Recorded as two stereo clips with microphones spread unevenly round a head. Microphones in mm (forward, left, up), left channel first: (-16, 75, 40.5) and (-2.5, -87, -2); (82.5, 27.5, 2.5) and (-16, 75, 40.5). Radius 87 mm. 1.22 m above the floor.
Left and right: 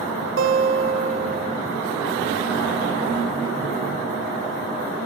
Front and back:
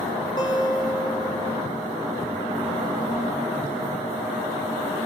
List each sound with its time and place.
0.4 s a guitar: 95° right, 0.6 m